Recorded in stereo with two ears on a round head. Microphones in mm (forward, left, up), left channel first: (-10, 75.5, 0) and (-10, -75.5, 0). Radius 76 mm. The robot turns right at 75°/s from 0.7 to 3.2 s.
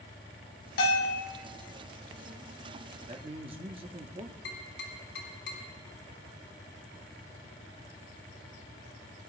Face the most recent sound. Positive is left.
turn(degrees=75)  # may be behind; listen again after turning